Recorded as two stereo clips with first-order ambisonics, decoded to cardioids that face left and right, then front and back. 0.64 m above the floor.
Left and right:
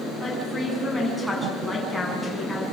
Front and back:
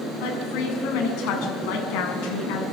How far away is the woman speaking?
About 6.5 m.